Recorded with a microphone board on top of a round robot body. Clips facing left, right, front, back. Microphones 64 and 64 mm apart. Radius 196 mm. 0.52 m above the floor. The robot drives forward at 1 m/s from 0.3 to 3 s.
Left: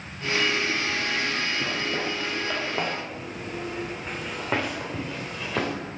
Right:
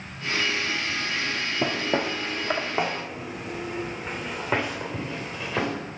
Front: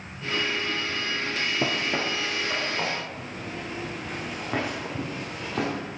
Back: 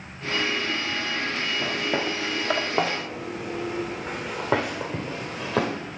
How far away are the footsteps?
About 0.8 m.